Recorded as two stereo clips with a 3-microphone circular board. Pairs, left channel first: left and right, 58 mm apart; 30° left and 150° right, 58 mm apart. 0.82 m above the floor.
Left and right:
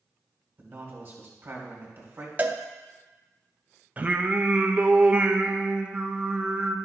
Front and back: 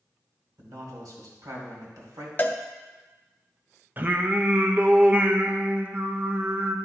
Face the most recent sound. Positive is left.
turn(degrees=-130)